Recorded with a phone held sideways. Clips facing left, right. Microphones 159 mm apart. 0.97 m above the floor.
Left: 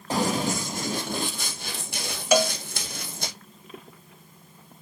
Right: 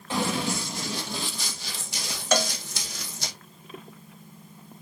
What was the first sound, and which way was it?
Running footsteps, 40° left (ahead or behind).